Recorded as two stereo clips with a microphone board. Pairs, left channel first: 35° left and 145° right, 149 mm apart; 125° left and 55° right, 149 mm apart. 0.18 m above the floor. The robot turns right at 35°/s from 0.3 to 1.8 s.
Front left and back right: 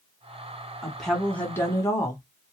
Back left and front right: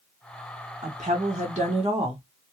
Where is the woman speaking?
60° right, 2 m; by 2.2 s 25° right, 2 m.